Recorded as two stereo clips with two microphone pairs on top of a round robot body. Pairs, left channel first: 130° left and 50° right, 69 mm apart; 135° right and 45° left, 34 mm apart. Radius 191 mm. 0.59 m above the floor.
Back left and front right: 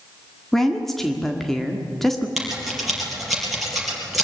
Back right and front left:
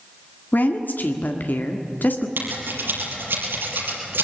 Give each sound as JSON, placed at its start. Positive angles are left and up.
{"t": 0.5, "sound": "a woman speaking", "azimuth_deg": -145, "distance_m": 1.8}
{"t": 2.4, "sound": "scissors", "azimuth_deg": 40, "distance_m": 5.0}